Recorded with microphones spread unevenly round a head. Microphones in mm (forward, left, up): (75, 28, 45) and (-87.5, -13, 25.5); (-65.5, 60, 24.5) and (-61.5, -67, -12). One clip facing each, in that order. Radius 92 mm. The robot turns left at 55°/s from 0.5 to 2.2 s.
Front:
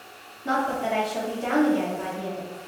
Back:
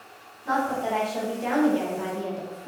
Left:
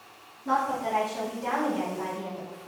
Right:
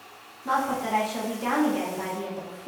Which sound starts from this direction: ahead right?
A woman speaking, at 0.5 s.